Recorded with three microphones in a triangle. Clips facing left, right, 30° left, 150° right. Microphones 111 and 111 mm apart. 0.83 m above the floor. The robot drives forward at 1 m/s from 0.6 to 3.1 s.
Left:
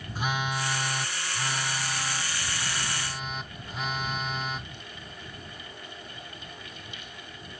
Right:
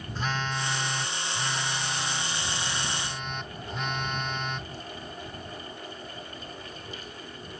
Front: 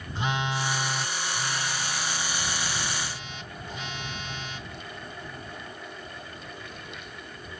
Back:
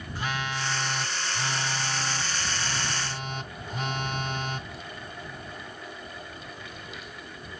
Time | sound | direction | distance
0.1 | a phone buzzing | 30° left | ?